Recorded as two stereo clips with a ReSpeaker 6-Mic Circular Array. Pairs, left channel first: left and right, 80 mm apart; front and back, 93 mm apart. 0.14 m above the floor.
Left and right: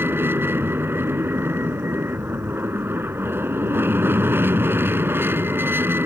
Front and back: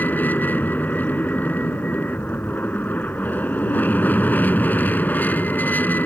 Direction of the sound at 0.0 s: 55° right.